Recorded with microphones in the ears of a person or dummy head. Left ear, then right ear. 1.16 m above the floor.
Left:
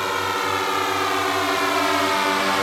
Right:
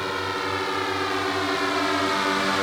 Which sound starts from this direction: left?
A drone, at 0.0 s.